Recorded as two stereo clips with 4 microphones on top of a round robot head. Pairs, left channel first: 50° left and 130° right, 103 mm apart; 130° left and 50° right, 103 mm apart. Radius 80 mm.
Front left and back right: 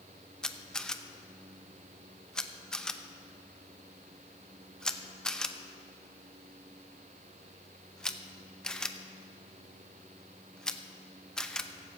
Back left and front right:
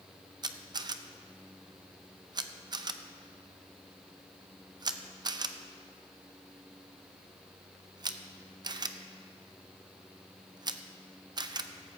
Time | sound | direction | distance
0.4 | a camera shutter | 30° right | 0.8 m